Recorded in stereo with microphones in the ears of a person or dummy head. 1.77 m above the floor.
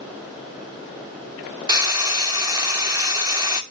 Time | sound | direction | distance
1.7 | frying | 15° right (ahead or behind) | 0.5 m